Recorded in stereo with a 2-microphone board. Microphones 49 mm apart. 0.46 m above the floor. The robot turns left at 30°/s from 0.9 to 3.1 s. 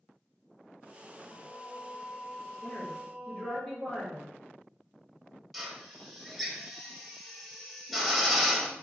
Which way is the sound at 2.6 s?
5° right (ahead or behind).